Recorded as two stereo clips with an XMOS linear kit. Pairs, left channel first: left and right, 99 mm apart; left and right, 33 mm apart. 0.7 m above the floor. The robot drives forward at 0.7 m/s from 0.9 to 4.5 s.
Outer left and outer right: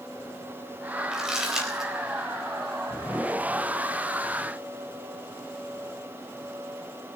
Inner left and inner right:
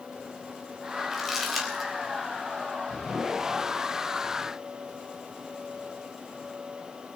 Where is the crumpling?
5° right (ahead or behind), 4 m.